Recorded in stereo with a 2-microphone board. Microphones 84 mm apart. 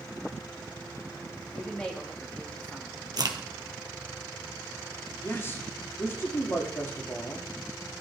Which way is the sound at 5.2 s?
30° left (ahead or behind).